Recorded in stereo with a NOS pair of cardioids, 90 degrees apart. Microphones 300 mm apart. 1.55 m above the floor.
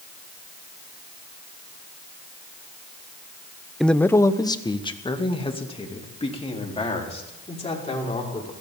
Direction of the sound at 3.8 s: Straight ahead.